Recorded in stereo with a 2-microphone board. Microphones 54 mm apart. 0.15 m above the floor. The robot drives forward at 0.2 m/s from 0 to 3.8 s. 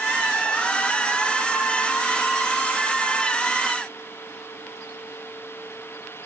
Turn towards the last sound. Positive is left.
No sound to turn to.